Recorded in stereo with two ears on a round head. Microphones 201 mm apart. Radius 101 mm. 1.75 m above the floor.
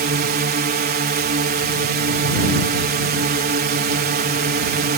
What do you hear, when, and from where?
0.0 s a drone: 45° right (ahead or behind)